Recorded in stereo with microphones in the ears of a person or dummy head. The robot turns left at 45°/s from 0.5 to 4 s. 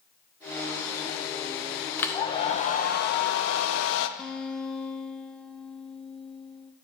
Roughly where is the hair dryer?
Behind.